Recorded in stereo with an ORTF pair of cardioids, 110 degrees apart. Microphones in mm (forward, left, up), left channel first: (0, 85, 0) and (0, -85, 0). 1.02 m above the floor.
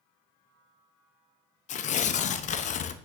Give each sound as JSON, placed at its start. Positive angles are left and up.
{"t": 1.7, "sound": "tearing paper", "azimuth_deg": 45, "distance_m": 0.6}